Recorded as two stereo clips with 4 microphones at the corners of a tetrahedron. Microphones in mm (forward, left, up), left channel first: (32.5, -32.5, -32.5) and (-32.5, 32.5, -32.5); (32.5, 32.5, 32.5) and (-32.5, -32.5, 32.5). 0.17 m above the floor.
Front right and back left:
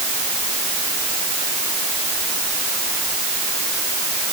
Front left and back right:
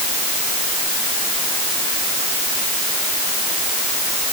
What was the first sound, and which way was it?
Only background noise.